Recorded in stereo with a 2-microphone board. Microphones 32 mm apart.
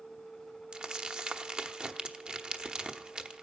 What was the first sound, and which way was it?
Crumpling, 30° right (ahead or behind).